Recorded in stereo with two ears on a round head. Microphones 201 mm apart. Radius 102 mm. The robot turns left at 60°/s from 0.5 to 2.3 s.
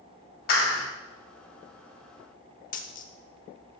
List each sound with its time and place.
0.5 s a clap: 45° left (ahead or behind), 3 m; by 0.9 s 25° left (ahead or behind), 3 m
2.7 s a dropped coin: 35° left (ahead or behind), 0.8 m